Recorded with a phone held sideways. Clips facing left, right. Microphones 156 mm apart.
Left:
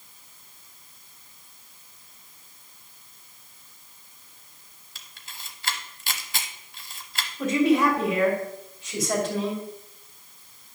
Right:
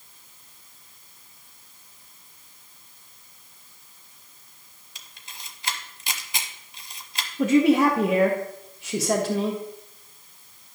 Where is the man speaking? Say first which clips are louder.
Right 3 dB; 75° right (ahead or behind), 1.6 m.